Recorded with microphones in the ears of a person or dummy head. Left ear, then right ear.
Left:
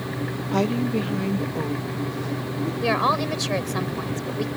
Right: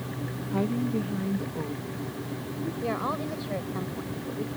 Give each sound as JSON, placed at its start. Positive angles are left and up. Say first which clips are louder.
{"t": 0.5, "sound": "a woman speaking", "louder": "left 6 dB", "side_deg": 55}
{"t": 2.8, "sound": "a woman speaking", "louder": "left 10 dB", "side_deg": 70}